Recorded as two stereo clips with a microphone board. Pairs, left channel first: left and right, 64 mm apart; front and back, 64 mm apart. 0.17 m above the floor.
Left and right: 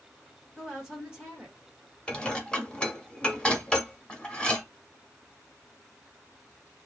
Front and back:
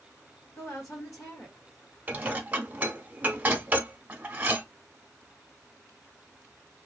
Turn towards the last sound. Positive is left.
turn(degrees=145)